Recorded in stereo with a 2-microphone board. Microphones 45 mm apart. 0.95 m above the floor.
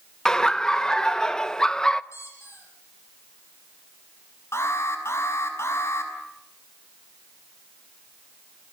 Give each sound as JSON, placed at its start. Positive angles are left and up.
{"t": 0.2, "sound": "laughter", "side_deg": 15, "distance_m": 0.9}
{"t": 2.1, "sound": "a squeak", "side_deg": 85, "distance_m": 9.5}
{"t": 4.5, "sound": "an alarm", "side_deg": 75, "distance_m": 5.5}